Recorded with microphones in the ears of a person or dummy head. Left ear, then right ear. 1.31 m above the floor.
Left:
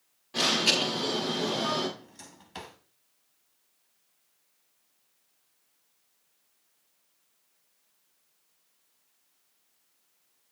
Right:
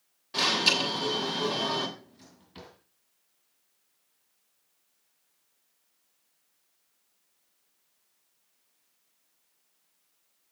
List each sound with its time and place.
0.3 s an alarm: 25° right (ahead or behind), 6.5 m
2.0 s a drawer: 40° left (ahead or behind), 1.7 m